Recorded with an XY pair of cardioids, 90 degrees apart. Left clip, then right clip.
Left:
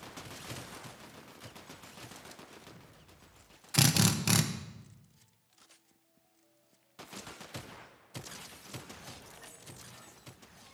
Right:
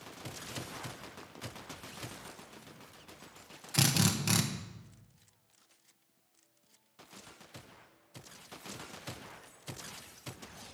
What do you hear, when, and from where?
3.7 s a drill: 20° left, 1.2 m